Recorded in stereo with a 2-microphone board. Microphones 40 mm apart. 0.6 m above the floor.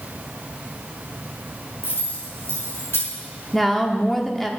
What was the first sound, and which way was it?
Keys jangling, 85° left.